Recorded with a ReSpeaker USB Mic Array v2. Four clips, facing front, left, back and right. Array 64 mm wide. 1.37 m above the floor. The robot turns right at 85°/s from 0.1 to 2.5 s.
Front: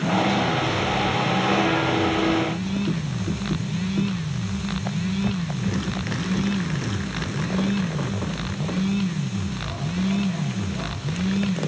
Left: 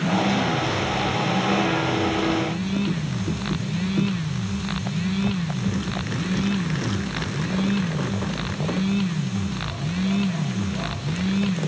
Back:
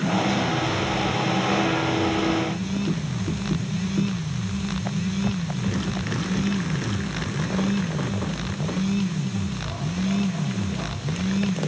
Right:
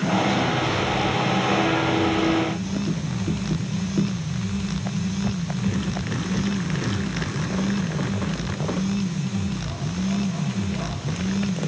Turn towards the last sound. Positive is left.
No sound to turn to.